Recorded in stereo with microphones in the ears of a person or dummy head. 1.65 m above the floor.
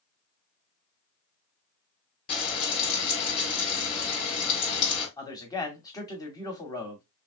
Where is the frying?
35° left (ahead or behind), 1.6 m.